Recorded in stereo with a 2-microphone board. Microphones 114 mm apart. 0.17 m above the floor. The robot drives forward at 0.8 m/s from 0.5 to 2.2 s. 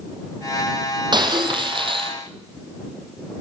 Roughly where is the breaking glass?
Right.